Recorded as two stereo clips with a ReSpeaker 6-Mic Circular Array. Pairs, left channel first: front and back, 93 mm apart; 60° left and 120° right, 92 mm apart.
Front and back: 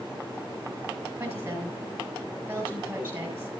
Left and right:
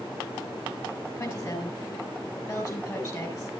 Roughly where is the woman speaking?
Left.